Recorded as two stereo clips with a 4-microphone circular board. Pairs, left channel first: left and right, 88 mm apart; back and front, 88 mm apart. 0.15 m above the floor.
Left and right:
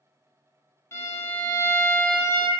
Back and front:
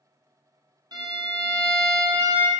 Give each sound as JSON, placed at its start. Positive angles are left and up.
{"t": 0.9, "sound": "a violin", "azimuth_deg": 30, "distance_m": 0.8}